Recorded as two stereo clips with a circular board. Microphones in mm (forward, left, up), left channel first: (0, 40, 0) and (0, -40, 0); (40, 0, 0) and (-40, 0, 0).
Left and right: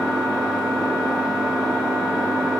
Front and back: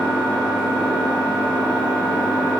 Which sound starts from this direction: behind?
An engine running, at 0.0 s.